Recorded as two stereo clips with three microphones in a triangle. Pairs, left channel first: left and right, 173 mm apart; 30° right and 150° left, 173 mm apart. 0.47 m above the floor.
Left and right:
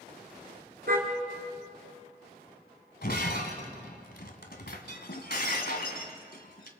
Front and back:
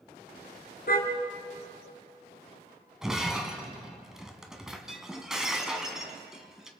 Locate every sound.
0.9 s a car horn: 60° right, 3 m
3.0 s breaking glass: 65° left, 1.9 m